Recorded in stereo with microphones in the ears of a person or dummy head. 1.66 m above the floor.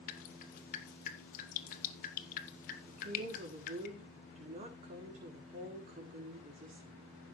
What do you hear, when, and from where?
0.1 s dripping: 40° left (ahead or behind), 2 m
2.9 s a woman speaking: 40° right (ahead or behind), 4 m